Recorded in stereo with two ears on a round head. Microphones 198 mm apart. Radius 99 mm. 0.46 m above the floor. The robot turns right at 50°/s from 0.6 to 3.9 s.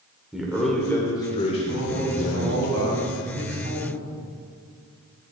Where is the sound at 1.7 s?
145° right, 2.5 m; by 4.0 s 35° right, 2.5 m.